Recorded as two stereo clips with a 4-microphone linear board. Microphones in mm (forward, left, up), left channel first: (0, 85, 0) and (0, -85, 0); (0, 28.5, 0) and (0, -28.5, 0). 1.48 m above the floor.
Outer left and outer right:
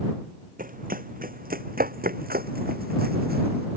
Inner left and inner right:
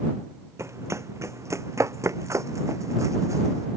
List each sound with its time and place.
0.6 s running footsteps: 55° right (ahead or behind); by 3.7 s 70° right (ahead or behind)